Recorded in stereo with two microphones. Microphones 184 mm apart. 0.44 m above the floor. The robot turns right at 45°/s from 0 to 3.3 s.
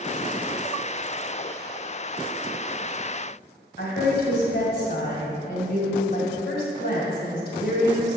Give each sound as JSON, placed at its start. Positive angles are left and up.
{"t": 3.8, "sound": "a woman speaking", "side_deg": 60, "distance_m": 2.0}